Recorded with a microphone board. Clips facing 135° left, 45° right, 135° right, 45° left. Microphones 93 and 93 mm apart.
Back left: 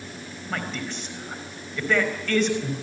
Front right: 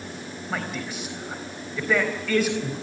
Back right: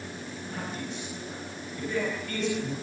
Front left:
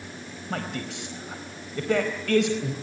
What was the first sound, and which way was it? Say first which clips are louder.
A man speaking: even, front left 5 dB; 40° left.